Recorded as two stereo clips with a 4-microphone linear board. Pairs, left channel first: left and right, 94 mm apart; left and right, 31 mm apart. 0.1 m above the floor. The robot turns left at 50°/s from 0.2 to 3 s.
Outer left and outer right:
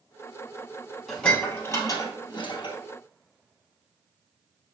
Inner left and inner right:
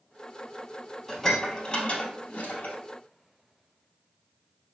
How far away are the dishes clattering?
About 1.8 m.